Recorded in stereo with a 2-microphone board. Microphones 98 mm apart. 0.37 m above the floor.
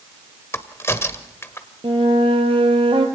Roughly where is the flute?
Right.